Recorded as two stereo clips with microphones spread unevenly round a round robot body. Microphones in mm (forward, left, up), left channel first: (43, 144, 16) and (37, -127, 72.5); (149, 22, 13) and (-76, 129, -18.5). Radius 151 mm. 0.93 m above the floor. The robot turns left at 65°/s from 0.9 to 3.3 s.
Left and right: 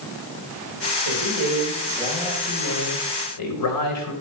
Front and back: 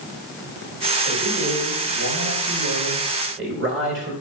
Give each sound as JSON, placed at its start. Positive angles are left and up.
{"t": 1.1, "sound": "a man speaking", "azimuth_deg": -100, "distance_m": 4.5}